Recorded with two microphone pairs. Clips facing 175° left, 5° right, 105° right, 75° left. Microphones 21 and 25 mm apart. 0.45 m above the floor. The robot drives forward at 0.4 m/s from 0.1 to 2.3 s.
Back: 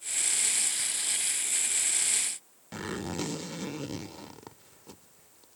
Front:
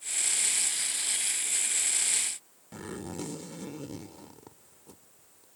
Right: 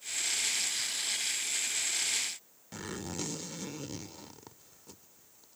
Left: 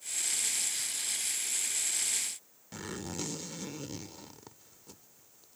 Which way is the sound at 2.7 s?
165° left.